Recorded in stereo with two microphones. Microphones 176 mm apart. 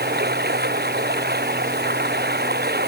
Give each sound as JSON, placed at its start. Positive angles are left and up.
{"t": 0.0, "sound": "running water", "side_deg": -65}